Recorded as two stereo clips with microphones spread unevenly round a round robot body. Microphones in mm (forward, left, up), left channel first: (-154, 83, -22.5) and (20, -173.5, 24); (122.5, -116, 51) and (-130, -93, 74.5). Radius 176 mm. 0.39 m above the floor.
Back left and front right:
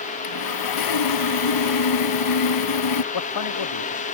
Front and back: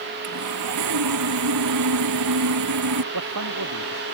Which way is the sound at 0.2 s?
140° left.